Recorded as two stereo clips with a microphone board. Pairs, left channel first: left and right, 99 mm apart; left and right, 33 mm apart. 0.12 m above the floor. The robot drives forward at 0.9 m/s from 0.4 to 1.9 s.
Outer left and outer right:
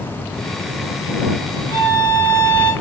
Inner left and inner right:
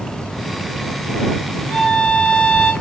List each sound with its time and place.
1.7 s a violin: 55° left (ahead or behind), 2 m; by 2.7 s 50° left (ahead or behind), 2 m